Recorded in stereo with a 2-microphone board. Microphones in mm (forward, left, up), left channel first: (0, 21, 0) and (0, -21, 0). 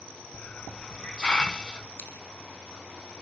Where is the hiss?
25° left (ahead or behind), 0.7 m.